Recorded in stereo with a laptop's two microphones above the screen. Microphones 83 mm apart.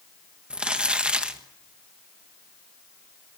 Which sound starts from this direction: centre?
Crumpling, at 0.5 s.